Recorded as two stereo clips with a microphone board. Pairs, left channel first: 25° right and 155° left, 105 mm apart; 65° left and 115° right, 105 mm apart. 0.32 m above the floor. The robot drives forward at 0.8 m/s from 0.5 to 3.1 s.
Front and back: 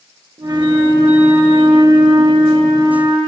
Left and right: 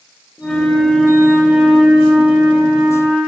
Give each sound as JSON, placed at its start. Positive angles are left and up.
{"t": 0.4, "sound": "a flute", "azimuth_deg": 145, "distance_m": 1.2}